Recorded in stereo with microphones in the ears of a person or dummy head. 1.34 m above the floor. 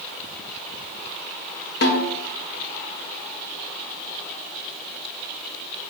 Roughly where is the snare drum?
Left.